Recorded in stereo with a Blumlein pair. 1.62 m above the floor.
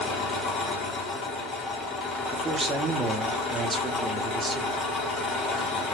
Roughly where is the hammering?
I don't hear hammering.